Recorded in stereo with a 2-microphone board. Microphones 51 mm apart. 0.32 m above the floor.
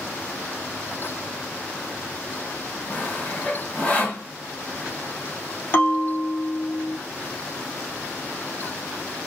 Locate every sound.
2.9 s sawing: 30° left (ahead or behind), 2 m
5.7 s a bell: 40° left (ahead or behind), 2 m